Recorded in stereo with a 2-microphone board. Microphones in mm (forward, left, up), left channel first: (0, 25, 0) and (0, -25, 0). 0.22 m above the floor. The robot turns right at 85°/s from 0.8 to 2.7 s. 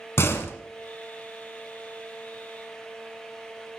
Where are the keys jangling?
I don't hear keys jangling.